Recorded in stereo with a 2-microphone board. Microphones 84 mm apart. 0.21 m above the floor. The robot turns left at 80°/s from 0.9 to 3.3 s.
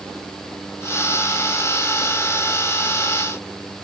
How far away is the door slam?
I don't hear a door slam.